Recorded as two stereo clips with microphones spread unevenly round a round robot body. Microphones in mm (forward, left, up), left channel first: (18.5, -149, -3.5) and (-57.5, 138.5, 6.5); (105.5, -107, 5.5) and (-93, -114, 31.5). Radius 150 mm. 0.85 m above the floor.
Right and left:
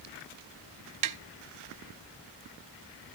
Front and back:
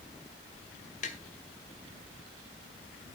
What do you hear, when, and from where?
1.0 s tapping: 70° left, 0.8 m